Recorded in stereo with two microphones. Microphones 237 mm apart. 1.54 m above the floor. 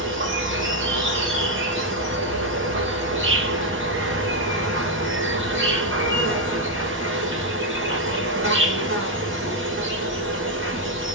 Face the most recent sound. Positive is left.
turn(degrees=-55)  # may be behind; listen again after turning